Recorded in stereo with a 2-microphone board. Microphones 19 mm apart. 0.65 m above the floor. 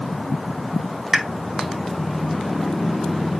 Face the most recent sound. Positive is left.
turn(degrees=-30)  # may be behind; listen again after turning